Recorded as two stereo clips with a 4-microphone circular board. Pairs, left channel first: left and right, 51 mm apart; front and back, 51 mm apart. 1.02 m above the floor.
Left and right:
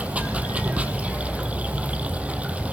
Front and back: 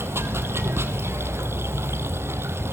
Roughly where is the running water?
Behind right.